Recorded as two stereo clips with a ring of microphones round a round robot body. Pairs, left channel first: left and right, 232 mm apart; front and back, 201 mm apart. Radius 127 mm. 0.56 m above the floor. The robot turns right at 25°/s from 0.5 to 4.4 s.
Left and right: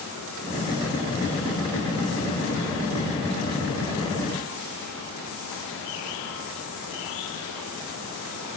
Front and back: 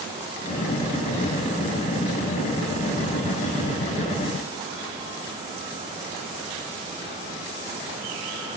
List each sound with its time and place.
Only background noise.